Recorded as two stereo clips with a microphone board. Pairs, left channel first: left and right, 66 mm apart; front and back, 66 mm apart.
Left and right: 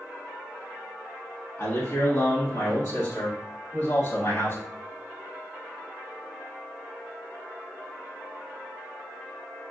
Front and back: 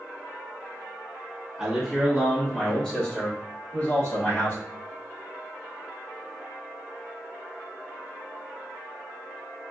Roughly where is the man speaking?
Left.